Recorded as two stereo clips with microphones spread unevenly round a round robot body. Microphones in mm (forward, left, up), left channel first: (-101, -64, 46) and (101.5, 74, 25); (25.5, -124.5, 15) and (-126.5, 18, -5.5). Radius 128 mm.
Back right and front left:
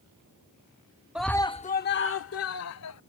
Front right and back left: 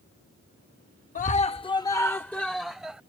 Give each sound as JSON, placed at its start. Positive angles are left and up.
{"t": 1.1, "sound": "a scream", "azimuth_deg": -40}